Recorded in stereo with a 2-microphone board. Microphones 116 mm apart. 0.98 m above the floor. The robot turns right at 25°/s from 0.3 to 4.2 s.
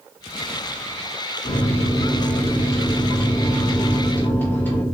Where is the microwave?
95° left, 0.7 m; by 4.8 s 165° left, 0.7 m.